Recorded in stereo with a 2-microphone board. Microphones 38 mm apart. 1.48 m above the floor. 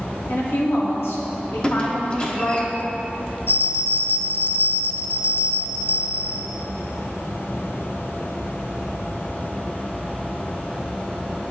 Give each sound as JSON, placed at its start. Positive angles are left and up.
{"t": 0.3, "sound": "a woman speaking", "side_deg": 75, "distance_m": 2.5}
{"t": 1.6, "sound": "a squeak", "side_deg": 30, "distance_m": 1.1}
{"t": 3.5, "sound": "a bell", "side_deg": 75, "distance_m": 0.7}